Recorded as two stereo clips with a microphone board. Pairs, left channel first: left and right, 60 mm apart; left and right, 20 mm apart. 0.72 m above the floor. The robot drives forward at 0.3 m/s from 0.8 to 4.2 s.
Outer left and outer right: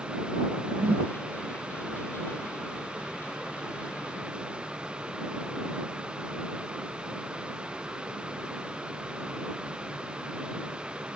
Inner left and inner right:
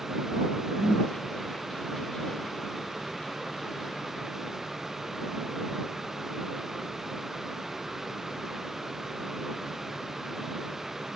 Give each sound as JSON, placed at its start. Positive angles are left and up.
{"t": 0.8, "sound": "a whoosh", "side_deg": -35}